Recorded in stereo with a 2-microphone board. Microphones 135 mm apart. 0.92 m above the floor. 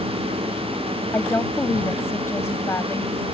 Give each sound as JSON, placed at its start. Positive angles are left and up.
{"t": 1.1, "sound": "a woman speaking", "side_deg": 20}